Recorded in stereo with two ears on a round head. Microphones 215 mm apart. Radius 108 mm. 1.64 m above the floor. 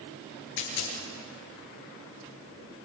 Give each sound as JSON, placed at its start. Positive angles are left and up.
{"t": 0.6, "sound": "a dropped coin", "side_deg": 65, "distance_m": 6.5}